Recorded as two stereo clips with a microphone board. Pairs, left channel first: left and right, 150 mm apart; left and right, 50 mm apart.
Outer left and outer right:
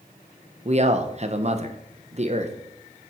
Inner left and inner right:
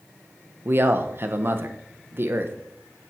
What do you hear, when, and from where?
0.7 s a man speaking: 50° right (ahead or behind), 1.1 m